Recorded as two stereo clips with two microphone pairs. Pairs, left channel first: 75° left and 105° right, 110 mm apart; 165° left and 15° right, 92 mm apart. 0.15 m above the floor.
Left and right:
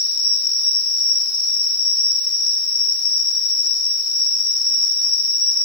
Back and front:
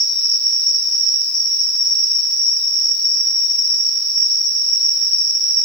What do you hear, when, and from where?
0.0 s an insect: 150° right, 1.8 m